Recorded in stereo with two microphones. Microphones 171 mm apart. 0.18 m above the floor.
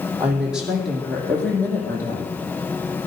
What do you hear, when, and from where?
0.2 s a woman speaking: 10° right (ahead or behind), 7 m; by 2.3 s 20° left (ahead or behind), 7 m